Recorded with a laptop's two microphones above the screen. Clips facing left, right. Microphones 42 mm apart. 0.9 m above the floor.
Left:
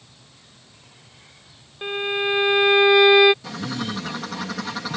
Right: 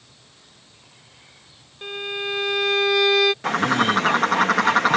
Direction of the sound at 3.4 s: 55° right (ahead or behind).